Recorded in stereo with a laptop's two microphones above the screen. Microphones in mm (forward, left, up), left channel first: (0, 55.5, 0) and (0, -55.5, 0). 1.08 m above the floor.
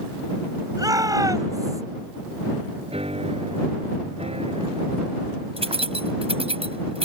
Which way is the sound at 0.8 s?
35° right (ahead or behind).